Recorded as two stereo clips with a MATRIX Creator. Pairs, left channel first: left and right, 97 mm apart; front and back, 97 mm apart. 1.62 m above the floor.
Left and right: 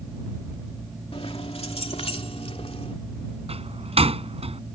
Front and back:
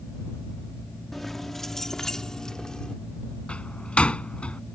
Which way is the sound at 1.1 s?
90° left.